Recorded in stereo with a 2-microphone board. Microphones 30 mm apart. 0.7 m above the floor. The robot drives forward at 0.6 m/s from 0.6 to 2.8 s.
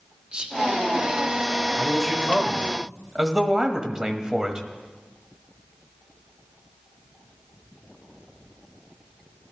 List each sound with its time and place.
0.3 s whispering: 30° right (ahead or behind), 1.3 m
1.8 s a man speaking: 20° right (ahead or behind), 1.6 m; by 4.7 s 25° right (ahead or behind), 1.3 m